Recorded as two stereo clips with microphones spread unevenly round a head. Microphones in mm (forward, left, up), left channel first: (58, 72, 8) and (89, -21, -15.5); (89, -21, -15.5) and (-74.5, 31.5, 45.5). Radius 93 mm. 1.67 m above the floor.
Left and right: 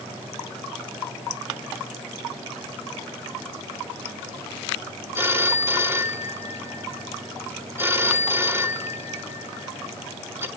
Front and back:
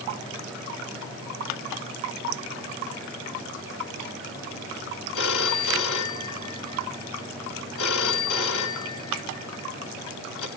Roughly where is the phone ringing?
Ahead.